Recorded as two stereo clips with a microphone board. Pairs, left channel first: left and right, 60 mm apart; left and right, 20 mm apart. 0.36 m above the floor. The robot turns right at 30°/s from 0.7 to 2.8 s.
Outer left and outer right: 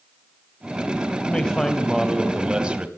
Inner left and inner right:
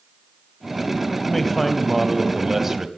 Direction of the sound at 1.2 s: 160° left.